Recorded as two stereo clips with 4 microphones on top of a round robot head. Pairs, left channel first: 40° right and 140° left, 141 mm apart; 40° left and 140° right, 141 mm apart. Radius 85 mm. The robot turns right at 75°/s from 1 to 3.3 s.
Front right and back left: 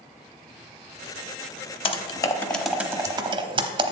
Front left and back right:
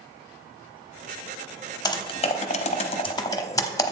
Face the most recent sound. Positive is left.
turn(degrees=95)